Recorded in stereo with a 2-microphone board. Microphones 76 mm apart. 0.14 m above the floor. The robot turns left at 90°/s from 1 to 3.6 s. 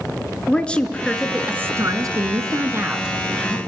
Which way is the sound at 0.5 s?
20° left.